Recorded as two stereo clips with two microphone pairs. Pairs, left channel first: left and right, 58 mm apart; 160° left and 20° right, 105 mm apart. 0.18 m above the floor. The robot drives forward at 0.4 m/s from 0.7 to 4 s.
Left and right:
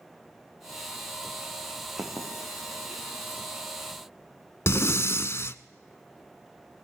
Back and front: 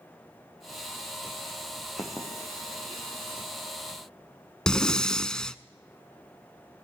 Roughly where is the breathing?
Left.